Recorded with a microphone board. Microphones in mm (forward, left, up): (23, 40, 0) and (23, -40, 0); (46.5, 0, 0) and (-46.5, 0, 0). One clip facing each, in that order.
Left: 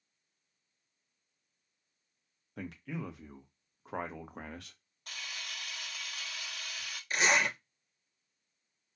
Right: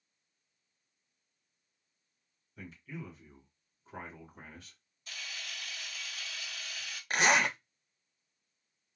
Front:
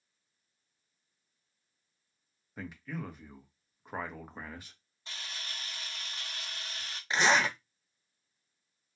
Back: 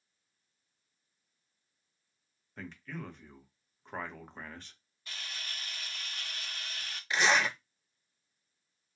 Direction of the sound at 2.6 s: 80° left.